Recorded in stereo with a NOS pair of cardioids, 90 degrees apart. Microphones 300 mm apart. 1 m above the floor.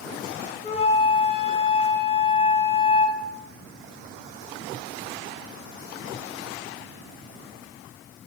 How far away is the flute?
About 0.6 m.